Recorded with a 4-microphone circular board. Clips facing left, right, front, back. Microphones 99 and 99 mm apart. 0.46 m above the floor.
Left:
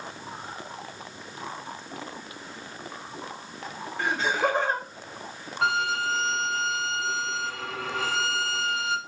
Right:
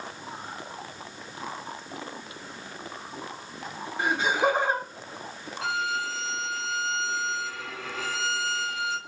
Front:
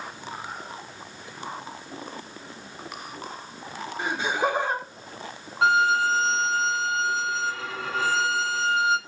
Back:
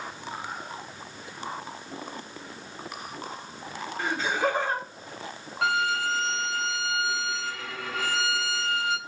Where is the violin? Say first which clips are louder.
Left 4 dB, front 6 dB; 60° left, 0.8 m.